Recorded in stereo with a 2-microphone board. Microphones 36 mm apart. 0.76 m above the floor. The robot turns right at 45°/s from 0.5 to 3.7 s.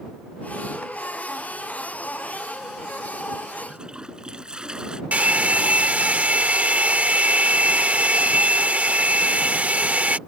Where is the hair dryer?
45° right (ahead or behind).